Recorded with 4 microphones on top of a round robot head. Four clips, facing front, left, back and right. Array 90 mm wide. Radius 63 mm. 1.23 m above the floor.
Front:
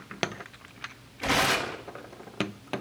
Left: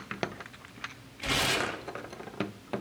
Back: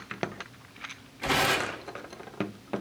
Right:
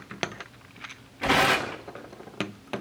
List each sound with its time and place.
1.2 s tearing paper: 75° right, 2.0 m